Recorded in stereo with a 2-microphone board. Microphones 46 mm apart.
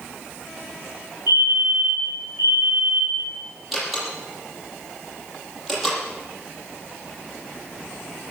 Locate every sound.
1.3 s a fire alarm: 55° right (ahead or behind), 9 m
3.7 s a door slam: centre (ahead or behind), 8 m